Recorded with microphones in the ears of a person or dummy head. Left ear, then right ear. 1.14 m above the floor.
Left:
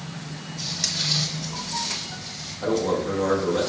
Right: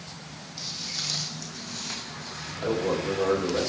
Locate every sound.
0.6 s footsteps: 60° right (ahead or behind), 2.5 m; by 2.5 s 75° right (ahead or behind), 5.5 m
2.6 s a man speaking: 45° right (ahead or behind), 4 m